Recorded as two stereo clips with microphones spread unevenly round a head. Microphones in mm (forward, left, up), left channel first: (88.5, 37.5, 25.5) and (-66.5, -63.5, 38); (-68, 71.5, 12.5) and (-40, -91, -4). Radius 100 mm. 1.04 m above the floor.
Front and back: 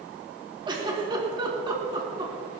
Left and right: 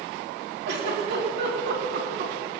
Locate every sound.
0.7 s a giggle: 80° right, 3.5 m